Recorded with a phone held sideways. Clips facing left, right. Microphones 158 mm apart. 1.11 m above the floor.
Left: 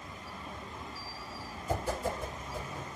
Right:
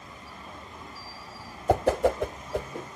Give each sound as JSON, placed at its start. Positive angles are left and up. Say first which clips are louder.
{"t": 1.7, "sound": "a whoosh", "louder": "right 11 dB", "side_deg": -75, "distance_m": 0.6}